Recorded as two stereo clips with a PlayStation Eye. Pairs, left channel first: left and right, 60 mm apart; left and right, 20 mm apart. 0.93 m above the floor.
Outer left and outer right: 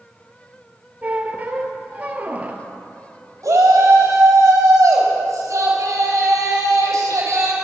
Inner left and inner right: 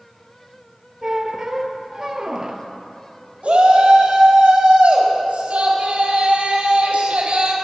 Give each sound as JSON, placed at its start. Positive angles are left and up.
{"t": 1.0, "sound": "a squeak", "side_deg": -25, "distance_m": 0.9}
{"t": 3.4, "sound": "a shout", "side_deg": -70, "distance_m": 3.5}